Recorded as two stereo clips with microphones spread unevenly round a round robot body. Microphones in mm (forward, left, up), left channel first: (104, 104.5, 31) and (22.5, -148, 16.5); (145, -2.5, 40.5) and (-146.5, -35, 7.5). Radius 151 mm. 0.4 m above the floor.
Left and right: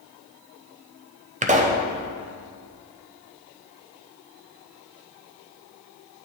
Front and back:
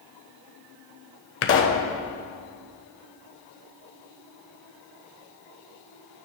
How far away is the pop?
About 0.7 m.